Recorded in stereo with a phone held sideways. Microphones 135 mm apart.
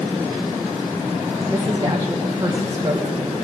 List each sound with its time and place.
1.5 s a woman speaking: 25° right (ahead or behind), 1.3 m